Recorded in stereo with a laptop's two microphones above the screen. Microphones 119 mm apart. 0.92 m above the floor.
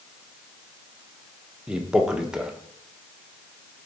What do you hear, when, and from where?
1.7 s a man speaking: 5° right (ahead or behind), 0.8 m